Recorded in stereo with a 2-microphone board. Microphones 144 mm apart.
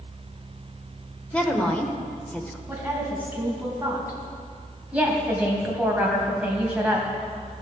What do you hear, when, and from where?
1.3 s a woman speaking: 10° left (ahead or behind), 1.1 m
2.7 s a woman speaking: 10° right (ahead or behind), 3 m
4.9 s a woman speaking: 10° right (ahead or behind), 2.5 m